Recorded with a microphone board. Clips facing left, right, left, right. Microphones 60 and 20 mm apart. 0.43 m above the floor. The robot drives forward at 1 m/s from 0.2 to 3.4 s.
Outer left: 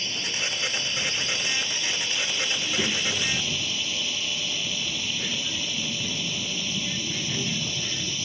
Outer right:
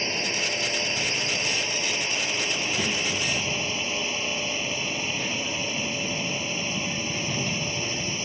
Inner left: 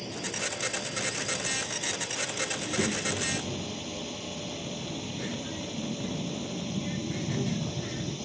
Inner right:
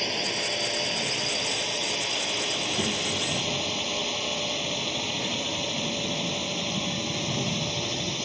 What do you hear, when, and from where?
0.0 s a drone: 40° right (ahead or behind); by 8.3 s 35° right (ahead or behind)
2.5 s a child speaking: 10° left (ahead or behind); by 8.2 s 5° left (ahead or behind)